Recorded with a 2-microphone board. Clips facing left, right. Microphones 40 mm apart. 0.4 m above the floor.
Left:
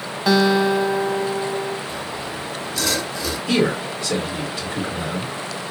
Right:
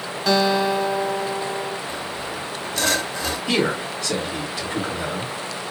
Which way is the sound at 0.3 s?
10° left (ahead or behind).